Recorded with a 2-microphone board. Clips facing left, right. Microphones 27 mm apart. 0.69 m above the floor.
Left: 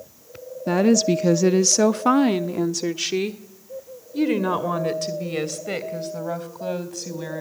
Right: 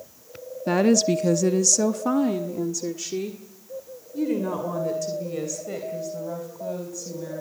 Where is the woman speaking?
5° right (ahead or behind), 0.7 m; by 7.4 s 60° left (ahead or behind), 4 m.